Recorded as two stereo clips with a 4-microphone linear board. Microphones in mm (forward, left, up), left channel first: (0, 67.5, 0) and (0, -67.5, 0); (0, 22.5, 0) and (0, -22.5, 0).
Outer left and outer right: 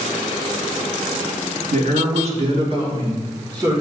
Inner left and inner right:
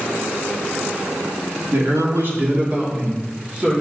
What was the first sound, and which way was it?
A man speaking, 60° right (ahead or behind).